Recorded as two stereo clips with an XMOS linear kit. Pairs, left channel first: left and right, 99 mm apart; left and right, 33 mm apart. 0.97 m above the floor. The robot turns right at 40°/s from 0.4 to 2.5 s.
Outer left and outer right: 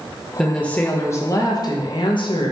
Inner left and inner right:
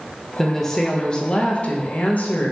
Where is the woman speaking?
5° left, 0.6 m; by 2.5 s 90° left, 0.6 m.